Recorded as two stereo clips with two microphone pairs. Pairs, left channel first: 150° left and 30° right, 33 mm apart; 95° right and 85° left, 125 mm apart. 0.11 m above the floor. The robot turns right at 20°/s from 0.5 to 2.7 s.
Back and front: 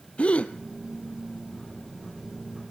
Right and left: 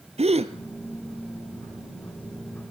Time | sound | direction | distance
0.2 | a gasp | 105° left | 1.3 m